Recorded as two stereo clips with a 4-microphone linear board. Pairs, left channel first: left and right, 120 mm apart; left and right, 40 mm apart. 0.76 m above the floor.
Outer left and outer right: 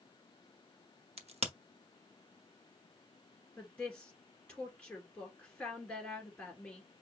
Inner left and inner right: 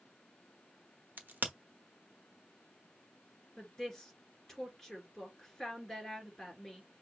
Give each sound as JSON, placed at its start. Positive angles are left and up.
{"t": 1.2, "sound": "a crack", "side_deg": -55, "distance_m": 1.0}
{"t": 3.6, "sound": "a woman speaking", "side_deg": 10, "distance_m": 2.5}